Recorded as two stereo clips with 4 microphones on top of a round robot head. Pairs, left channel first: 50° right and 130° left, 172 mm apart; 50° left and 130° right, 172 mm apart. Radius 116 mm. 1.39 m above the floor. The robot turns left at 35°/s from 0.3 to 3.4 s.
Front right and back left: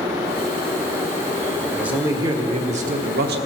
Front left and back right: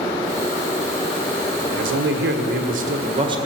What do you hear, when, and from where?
1.7 s a man speaking: 140° right, 1.3 m; by 3.4 s 160° left, 1.3 m